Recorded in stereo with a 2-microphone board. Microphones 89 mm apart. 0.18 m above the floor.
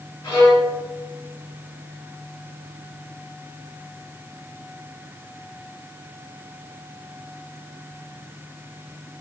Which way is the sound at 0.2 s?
50° left (ahead or behind).